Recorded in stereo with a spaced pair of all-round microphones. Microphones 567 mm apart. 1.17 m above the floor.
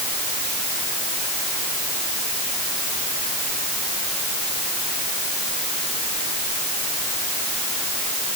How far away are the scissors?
No scissors in this recording.